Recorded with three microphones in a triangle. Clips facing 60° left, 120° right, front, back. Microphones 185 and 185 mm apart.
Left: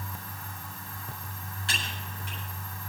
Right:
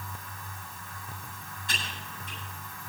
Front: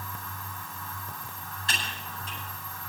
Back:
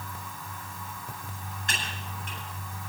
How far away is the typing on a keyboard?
About 9.5 m.